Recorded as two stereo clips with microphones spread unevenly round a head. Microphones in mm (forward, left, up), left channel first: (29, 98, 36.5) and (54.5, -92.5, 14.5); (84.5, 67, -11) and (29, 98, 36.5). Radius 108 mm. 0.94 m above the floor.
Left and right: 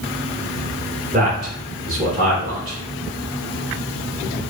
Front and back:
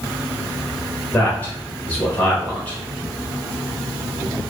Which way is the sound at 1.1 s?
50° right.